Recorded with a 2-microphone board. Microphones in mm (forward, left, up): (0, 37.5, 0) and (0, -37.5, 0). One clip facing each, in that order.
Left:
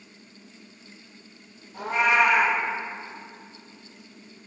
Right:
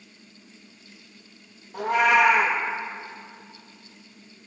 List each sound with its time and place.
1.7 s a cat meowing: 65° right (ahead or behind), 1.8 m